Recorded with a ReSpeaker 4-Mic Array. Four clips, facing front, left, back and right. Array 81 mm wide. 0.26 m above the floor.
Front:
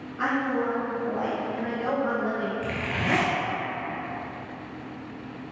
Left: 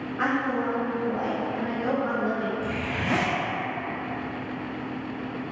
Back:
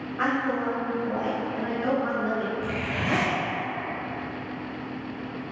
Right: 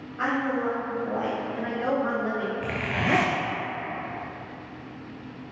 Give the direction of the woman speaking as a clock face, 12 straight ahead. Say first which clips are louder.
Even, even; 7 o'clock.